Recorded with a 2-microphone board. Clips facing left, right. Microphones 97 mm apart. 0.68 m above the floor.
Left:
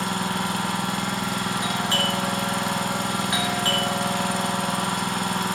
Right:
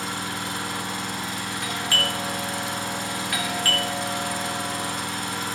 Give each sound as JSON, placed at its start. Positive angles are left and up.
{"t": 0.0, "sound": "an engine running", "side_deg": 65, "distance_m": 3.0}
{"t": 1.6, "sound": "a doorbell", "side_deg": 20, "distance_m": 3.0}